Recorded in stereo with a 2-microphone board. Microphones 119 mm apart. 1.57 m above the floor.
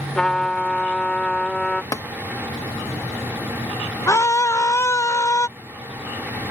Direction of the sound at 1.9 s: 30° left (ahead or behind).